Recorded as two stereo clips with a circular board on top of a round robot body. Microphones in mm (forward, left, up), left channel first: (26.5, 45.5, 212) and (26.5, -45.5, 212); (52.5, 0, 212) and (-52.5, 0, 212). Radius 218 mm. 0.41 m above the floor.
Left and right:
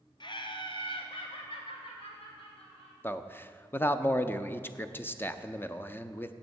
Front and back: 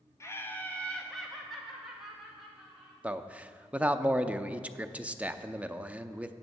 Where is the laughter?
60° left, 1.4 m; by 2.9 s 95° left, 3.5 m.